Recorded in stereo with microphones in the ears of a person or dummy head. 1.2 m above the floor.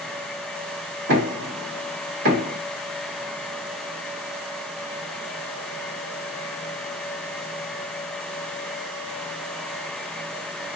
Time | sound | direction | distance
1.1 | knocking | 80° right | 1.8 m